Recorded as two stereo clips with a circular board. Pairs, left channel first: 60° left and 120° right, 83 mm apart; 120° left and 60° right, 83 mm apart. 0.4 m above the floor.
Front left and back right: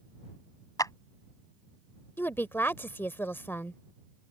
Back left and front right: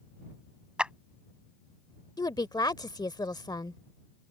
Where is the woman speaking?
115° left.